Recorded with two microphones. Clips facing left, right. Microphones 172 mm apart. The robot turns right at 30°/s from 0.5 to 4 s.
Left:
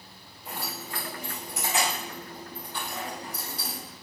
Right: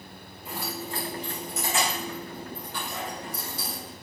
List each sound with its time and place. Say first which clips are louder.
0.5 s keys jangling: right 3 dB; 5° right (ahead or behind), 2.0 m; by 3.8 s 75° right (ahead or behind), 2.0 m